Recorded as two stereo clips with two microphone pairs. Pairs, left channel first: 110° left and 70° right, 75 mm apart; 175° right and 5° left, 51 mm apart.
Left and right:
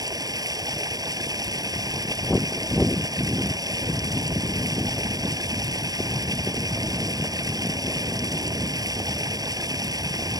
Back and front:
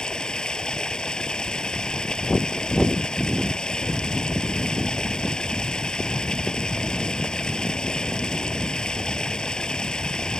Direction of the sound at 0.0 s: 105° right.